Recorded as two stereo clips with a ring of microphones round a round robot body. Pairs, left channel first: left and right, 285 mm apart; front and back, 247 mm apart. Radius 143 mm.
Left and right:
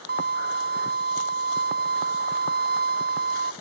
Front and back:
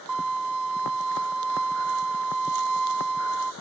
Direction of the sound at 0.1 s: 150° right.